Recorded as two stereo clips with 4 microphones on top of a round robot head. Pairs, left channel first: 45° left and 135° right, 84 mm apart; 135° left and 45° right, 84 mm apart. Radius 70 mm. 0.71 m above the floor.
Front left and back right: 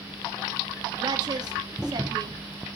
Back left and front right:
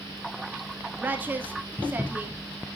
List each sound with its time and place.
1.0 s a woman speaking: 110° right, 1.9 m